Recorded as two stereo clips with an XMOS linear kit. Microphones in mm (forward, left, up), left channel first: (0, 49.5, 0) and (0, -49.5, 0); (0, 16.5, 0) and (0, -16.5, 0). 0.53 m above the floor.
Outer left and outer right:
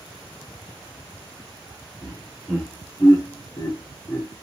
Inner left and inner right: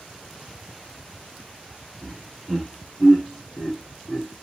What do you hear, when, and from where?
2.0 s laughter: 15° left (ahead or behind), 2.5 m; by 4.4 s 20° left (ahead or behind), 1.3 m